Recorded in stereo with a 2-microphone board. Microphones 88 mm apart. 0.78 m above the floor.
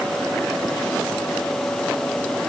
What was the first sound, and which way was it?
Only background noise.